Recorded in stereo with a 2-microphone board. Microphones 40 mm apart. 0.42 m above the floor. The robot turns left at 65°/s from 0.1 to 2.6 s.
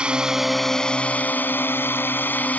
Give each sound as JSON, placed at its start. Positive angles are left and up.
{"t": 0.0, "sound": "a drone", "azimuth_deg": -155}